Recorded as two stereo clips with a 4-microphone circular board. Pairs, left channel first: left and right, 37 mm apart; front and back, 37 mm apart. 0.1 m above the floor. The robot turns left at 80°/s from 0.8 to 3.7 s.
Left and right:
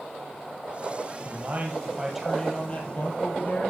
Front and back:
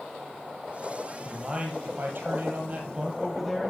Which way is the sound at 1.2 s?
100° right.